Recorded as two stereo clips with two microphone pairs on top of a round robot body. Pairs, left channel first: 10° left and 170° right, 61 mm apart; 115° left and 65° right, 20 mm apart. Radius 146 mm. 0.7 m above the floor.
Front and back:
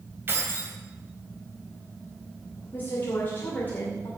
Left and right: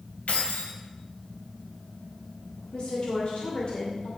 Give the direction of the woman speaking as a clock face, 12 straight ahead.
10 o'clock.